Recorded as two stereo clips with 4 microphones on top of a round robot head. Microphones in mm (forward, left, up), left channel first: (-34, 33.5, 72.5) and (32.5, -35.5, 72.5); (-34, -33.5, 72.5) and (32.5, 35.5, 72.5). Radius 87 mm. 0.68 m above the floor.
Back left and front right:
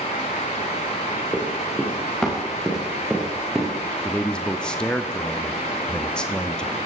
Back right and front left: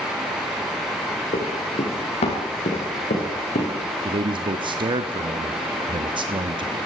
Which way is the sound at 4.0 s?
55° left.